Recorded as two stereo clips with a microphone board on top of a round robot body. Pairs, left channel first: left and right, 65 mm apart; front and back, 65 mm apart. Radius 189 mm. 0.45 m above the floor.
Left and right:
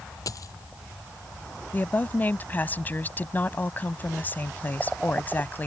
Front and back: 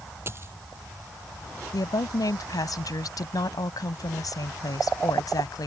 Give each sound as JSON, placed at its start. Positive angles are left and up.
{"t": 0.3, "sound": "a dropped coin", "azimuth_deg": 125}
{"t": 1.7, "sound": "a woman speaking", "azimuth_deg": 25}